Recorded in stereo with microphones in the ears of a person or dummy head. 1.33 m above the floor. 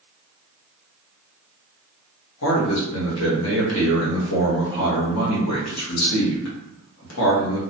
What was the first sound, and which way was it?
A man speaking, 75° left (ahead or behind).